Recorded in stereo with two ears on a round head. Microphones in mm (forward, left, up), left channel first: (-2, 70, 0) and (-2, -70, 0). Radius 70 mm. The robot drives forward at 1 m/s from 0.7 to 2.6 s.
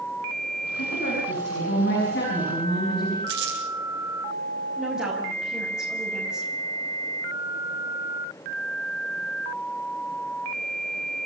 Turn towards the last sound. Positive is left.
turn(degrees=-5)  # may be behind; listen again after turning